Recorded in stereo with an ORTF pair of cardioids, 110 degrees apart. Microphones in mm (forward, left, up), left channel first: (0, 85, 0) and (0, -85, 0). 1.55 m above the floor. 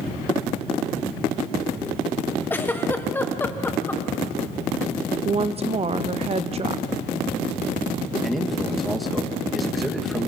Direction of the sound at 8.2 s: Straight ahead.